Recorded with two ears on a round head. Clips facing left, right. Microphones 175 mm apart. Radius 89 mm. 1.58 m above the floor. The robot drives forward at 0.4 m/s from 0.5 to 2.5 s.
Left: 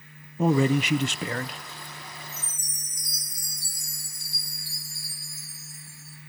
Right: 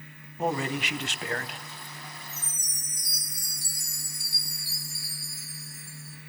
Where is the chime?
10° right (ahead or behind), 6 m.